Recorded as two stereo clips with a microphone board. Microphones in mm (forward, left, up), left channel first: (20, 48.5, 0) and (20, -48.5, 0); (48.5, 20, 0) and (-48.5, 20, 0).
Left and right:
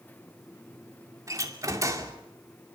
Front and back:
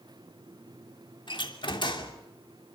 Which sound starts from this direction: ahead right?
A door slam, at 1.3 s.